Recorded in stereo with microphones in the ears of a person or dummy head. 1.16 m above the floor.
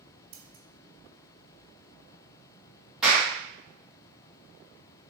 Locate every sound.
0.3 s scissors: 65° right (ahead or behind), 1.3 m
3.0 s a clap: 5° right (ahead or behind), 1.8 m